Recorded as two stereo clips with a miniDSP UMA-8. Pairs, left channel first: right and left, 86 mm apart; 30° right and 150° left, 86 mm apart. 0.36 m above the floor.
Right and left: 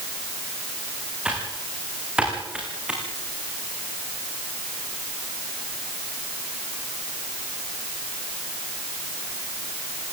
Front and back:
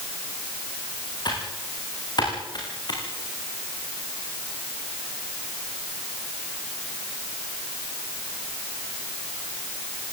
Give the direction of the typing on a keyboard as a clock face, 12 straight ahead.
12 o'clock.